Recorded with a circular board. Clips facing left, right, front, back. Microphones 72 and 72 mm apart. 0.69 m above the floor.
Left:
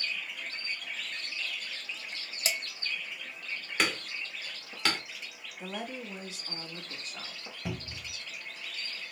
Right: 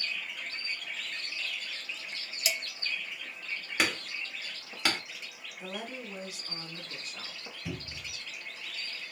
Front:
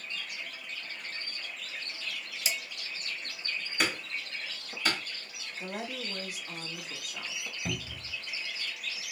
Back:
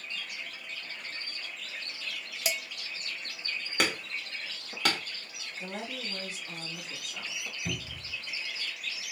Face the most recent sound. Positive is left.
turn(degrees=60)